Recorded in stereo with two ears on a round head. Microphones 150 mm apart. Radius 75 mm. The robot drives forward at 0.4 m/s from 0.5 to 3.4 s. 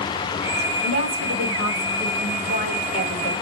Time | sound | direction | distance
0.8 | a woman speaking | 55° right (ahead or behind) | 3.5 m